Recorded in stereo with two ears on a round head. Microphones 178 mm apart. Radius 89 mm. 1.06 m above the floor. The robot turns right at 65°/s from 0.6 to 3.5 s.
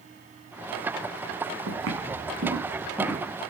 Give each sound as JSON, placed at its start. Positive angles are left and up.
{"t": 1.7, "sound": "footsteps", "side_deg": -80, "distance_m": 5.0}